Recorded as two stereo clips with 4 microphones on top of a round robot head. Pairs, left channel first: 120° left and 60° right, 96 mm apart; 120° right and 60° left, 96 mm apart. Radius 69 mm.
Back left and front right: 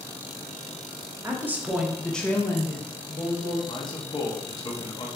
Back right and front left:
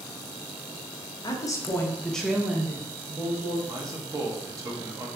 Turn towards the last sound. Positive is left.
turn(degrees=100)